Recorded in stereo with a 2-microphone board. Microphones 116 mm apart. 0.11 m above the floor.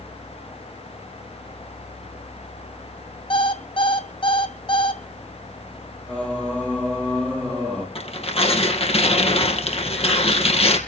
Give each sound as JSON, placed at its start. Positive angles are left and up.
{"t": 3.3, "sound": "an alarm clock", "side_deg": 50, "distance_m": 2.0}
{"t": 6.1, "sound": "singing", "side_deg": 10, "distance_m": 5.5}
{"t": 8.0, "sound": "tearing paper", "side_deg": 60, "distance_m": 3.5}